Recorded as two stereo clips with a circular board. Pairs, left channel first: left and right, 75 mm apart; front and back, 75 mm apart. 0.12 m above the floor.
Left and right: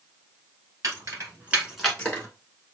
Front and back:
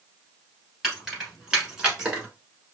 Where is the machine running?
No machine running in this recording.